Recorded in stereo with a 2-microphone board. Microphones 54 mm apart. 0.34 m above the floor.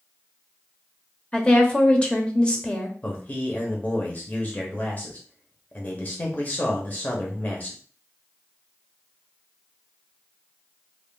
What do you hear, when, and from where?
1.3 s a woman speaking: 20° left (ahead or behind), 0.9 m
3.0 s a man speaking: 30° left (ahead or behind), 1.0 m